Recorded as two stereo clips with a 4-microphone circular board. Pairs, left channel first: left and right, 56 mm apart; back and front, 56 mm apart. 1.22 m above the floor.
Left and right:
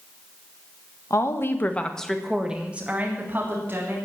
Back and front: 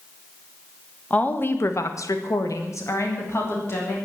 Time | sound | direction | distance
1.1 | a woman speaking | 115° left | 1.6 m